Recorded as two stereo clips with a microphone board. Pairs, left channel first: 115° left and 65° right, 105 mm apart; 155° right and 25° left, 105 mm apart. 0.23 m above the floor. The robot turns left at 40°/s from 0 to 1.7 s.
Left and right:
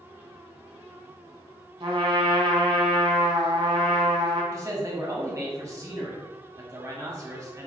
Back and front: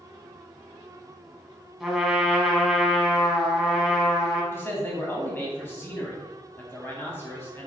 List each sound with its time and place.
1.8 s a trumpet: 65° right, 1.1 m
4.5 s a man speaking: 100° right, 1.2 m